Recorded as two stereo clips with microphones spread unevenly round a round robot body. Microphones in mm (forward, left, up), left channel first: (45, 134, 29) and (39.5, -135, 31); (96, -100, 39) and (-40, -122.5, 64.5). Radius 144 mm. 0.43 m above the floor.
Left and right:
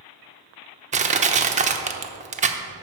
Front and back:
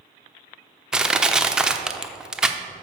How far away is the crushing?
About 0.8 m.